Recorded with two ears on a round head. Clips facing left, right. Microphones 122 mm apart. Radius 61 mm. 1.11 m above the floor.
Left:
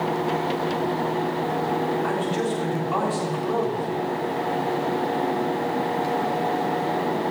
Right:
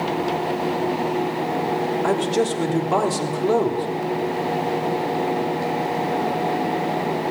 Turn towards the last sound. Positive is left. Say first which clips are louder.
# right 4 dB
turn(degrees=-50)  # may be behind; listen again after turning